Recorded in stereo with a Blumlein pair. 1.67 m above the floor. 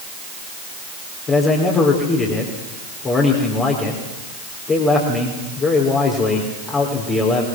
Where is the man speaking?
25° left, 4.5 m.